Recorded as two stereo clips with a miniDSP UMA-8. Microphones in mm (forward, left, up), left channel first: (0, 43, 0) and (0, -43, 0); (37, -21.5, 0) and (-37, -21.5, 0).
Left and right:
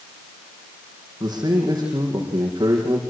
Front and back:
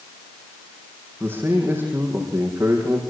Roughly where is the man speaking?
Behind right.